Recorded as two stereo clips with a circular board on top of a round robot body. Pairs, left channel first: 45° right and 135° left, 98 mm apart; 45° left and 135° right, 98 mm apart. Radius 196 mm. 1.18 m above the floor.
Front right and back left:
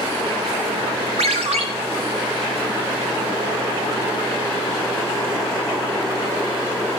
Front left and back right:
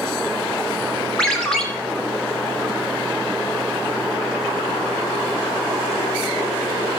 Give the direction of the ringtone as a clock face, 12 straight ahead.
8 o'clock.